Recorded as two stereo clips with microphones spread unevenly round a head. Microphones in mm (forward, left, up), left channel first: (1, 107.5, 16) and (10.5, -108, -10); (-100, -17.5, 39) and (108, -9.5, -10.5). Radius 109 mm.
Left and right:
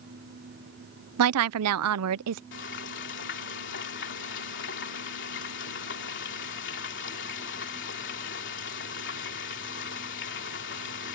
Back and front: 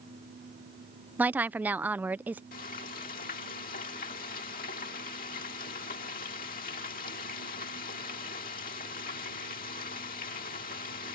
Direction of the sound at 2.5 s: 130° left.